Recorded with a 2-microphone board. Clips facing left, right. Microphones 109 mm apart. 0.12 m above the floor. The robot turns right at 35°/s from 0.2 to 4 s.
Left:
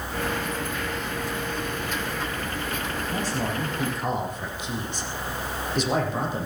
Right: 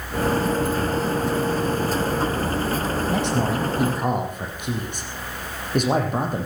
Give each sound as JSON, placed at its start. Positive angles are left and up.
{"t": 3.1, "sound": "a man speaking", "azimuth_deg": -85, "distance_m": 4.5}